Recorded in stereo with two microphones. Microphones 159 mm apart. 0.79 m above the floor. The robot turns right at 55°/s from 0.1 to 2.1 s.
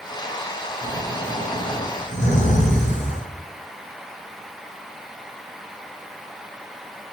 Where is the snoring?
15° right, 0.8 m; by 3.3 s 55° left, 0.8 m.